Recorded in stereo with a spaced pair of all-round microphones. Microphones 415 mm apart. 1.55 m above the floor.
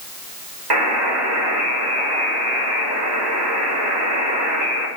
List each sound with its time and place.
0.7 s a buzzer: 70° right (ahead or behind), 3 m